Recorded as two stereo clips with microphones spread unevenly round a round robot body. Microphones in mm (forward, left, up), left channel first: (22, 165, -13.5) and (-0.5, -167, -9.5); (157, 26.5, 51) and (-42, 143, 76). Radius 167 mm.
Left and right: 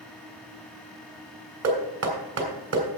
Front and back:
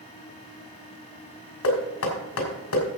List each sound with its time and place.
1.6 s knocking: 45° right, 3 m